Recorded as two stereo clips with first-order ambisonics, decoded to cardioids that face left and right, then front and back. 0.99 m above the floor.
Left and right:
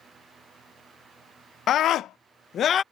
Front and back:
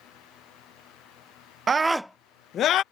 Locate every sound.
1.7 s a scream: 120° left; by 2.8 s 35° left